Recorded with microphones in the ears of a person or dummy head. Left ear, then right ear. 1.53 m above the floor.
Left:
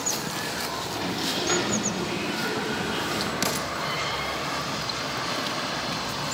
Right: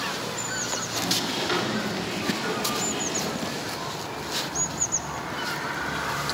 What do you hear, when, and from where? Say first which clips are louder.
0.9 s a sliding door: right 3 dB; centre (ahead or behind), 5 m
3.4 s an explosion: left 4 dB; 55° left (ahead or behind), 1.6 m